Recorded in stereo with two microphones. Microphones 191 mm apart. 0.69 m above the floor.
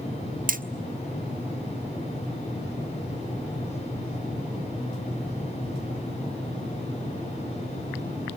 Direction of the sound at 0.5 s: 45° right (ahead or behind).